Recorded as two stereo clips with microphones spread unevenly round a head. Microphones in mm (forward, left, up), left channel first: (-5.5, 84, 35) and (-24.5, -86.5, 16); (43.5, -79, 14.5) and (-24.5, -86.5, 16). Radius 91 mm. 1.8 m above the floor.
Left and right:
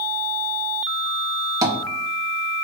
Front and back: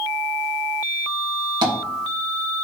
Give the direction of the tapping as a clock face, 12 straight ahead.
6 o'clock.